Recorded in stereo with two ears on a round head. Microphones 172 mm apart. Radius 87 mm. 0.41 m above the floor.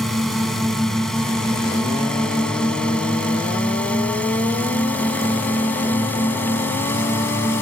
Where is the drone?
Centre (ahead or behind); by 7.6 s 10° left (ahead or behind).